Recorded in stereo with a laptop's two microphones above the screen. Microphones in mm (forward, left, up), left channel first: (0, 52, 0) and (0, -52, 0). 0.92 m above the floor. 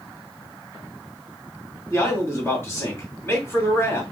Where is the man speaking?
25° left (ahead or behind), 1.9 m.